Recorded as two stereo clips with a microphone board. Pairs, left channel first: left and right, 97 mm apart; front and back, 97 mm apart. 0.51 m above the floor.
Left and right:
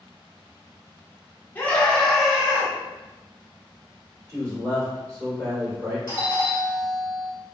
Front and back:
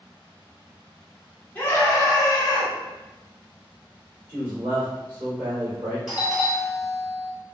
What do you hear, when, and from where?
1.6 s a scream: 45° left, 0.8 m; by 2.7 s 15° right, 1.1 m
4.3 s a man speaking: 135° right, 1.9 m
6.1 s a doorbell: 95° left, 1.5 m